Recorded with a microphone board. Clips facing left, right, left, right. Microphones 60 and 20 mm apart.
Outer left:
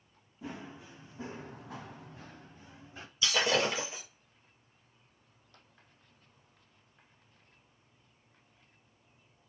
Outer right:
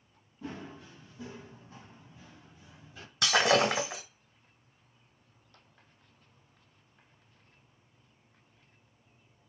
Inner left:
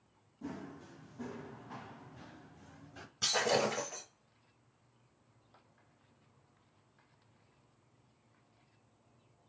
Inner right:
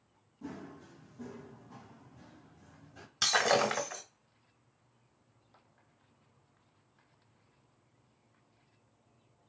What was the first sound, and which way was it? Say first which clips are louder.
Running footsteps: outer right 1 dB, even; 10° left (ahead or behind).